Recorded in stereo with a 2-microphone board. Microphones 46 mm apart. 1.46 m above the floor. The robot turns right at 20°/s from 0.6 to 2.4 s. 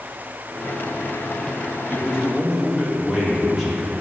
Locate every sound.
1.9 s a man speaking: 20° right (ahead or behind), 2 m; by 3.9 s 10° right (ahead or behind), 2 m